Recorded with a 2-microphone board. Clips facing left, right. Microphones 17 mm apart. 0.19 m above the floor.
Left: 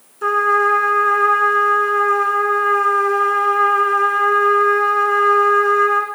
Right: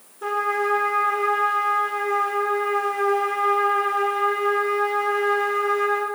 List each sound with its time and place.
0.2 s a trumpet: 40° left (ahead or behind), 2.5 m